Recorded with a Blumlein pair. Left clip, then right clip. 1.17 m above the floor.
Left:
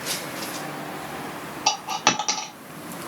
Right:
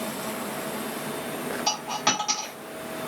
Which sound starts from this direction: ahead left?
A dropped coin, at 1.7 s.